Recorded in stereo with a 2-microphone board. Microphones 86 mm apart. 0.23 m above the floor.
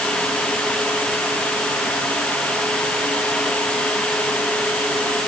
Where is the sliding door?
No sliding door in this recording.